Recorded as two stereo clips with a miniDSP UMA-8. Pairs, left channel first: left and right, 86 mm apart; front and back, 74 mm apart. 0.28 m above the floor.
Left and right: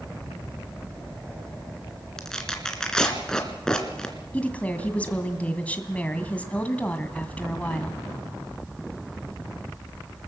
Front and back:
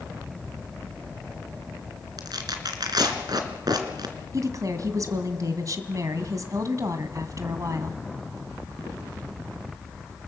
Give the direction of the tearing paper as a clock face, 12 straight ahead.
6 o'clock.